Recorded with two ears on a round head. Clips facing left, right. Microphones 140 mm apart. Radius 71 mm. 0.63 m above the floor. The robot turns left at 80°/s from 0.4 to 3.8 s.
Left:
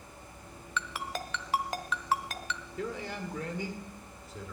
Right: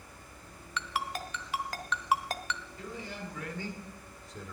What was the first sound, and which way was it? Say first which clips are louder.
A ringtone: right 1 dB; 85° left.